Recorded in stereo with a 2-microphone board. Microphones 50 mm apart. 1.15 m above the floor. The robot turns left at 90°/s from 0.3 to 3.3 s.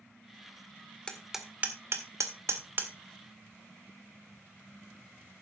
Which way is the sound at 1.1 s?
20° left (ahead or behind).